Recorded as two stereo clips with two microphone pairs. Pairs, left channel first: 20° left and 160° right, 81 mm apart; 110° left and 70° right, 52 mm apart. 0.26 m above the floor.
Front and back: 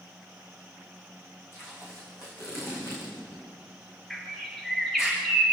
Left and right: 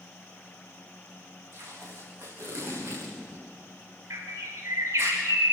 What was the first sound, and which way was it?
Tape being pulled, 35° right.